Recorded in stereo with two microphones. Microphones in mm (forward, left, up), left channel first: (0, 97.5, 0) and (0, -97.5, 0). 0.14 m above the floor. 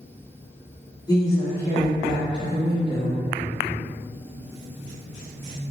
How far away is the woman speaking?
About 1.6 m.